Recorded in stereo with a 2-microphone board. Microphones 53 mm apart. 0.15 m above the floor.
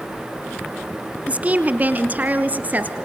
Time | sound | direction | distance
1.3 | a woman speaking | 25° right (ahead or behind) | 1.4 m